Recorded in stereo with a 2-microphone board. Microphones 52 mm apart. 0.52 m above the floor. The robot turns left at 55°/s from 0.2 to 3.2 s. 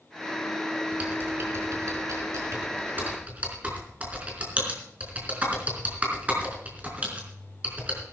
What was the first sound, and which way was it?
Typing on a keyboard, 25° right (ahead or behind).